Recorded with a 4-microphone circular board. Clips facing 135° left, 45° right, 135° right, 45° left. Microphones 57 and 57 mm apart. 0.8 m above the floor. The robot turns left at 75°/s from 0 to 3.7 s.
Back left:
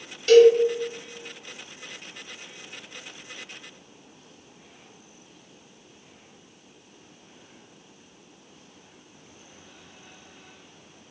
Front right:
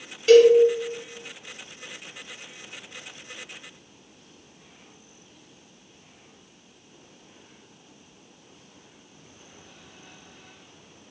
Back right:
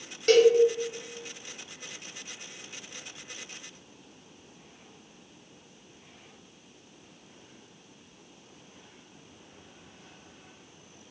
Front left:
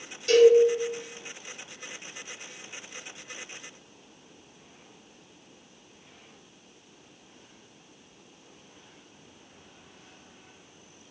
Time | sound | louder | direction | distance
0.3 | a cowbell | even, front left 2 dB | 120° right | 1.0 m